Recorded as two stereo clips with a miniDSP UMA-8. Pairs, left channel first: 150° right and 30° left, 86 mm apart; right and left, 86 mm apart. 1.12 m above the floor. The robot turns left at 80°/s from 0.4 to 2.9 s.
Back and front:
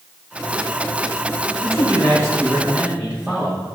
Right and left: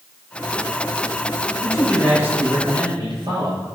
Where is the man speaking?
155° right, 6 m; by 3.8 s 105° left, 6 m.